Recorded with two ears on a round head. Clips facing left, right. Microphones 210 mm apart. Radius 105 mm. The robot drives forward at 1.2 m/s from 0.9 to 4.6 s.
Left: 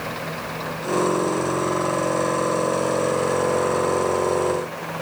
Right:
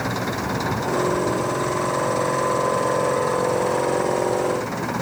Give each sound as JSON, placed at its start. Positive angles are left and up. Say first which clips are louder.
{"t": 0.0, "sound": "an engine running", "louder": "right 5 dB", "side_deg": -70}